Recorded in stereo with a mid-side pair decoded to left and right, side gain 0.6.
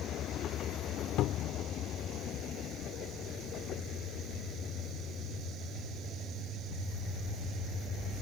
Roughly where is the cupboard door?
Ahead left.